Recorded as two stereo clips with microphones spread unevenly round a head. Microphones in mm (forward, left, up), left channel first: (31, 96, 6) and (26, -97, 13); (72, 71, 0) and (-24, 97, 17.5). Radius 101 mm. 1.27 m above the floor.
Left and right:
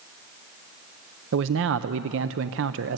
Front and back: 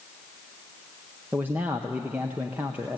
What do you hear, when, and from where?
1.3 s a man speaking: 115° right, 0.5 m